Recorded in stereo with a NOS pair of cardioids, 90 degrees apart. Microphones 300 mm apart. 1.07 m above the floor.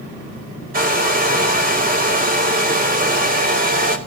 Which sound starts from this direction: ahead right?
A hair dryer, at 0.7 s.